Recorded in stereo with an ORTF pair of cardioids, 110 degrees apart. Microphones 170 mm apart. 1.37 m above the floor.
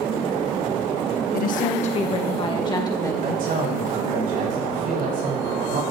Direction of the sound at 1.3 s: 60° left.